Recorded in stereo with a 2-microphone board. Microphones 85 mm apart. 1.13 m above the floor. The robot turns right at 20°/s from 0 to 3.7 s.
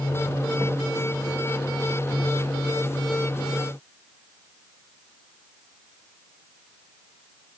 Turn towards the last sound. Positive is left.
No sound to turn to.